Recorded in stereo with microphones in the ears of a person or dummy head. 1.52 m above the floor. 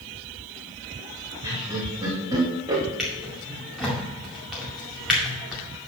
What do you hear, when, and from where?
1.4 s laughter: 15° right (ahead or behind), 2.5 m
3.0 s a drawer: centre (ahead or behind), 2 m